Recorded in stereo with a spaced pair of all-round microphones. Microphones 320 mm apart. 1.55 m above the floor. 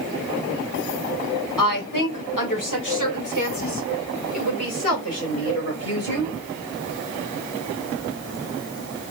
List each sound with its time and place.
1.6 s a woman speaking: 85° left, 1.3 m; by 6.3 s 45° left (ahead or behind), 3.5 m